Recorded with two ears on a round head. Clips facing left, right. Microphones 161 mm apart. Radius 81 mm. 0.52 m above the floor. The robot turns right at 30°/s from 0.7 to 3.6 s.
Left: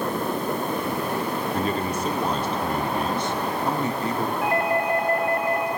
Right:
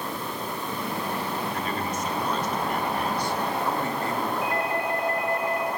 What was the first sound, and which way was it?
A man speaking, 25° left (ahead or behind).